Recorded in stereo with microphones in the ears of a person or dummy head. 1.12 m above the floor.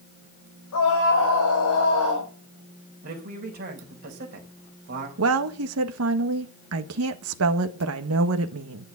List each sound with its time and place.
0.7 s a scream: 80° left, 6 m; by 2.3 s 85° left, 5 m
3.0 s a man speaking: 45° right (ahead or behind), 4.5 m
5.2 s a woman speaking: 70° right (ahead or behind), 1.6 m